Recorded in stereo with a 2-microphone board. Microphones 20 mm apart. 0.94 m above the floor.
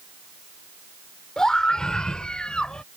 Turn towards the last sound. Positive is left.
turn(degrees=65)  # may be behind; listen again after turning